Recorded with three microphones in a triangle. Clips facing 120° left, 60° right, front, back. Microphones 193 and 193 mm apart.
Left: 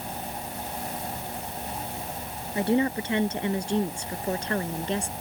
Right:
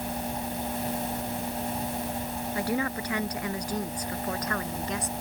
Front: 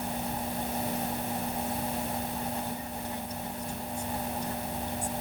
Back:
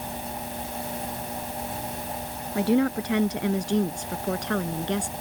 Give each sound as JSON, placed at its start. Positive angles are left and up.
{"t": 2.5, "sound": "a woman speaking", "azimuth_deg": -175}